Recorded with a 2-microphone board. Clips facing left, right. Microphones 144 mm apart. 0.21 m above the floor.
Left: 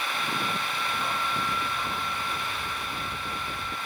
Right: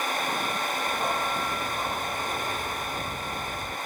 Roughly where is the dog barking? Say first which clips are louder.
Right 2 dB; right.